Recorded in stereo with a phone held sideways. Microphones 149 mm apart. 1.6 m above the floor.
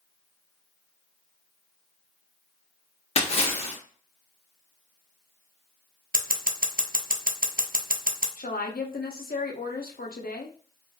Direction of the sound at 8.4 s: 80° left.